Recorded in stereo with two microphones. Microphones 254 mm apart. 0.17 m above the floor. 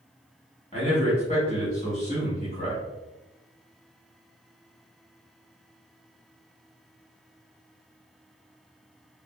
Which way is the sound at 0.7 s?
30° left (ahead or behind).